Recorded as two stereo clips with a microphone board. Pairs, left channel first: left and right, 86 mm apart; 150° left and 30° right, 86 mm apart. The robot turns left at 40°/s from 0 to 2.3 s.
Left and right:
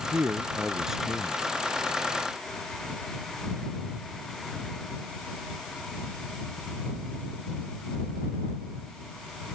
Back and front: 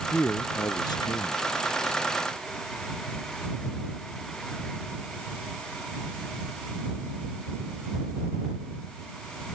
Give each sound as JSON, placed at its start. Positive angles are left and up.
{"t": 0.1, "sound": "a man speaking", "azimuth_deg": -145}